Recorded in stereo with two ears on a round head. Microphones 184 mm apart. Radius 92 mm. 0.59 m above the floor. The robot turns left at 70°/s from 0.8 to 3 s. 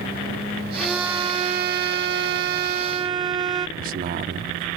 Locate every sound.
0.8 s a violin: 5° left; by 3.7 s 150° right
3.8 s a man speaking: 45° right (ahead or behind)